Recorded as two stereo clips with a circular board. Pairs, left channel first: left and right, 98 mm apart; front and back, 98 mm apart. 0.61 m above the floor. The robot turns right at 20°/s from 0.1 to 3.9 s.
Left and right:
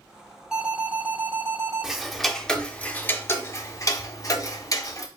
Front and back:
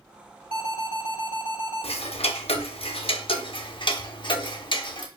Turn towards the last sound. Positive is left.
turn(degrees=35)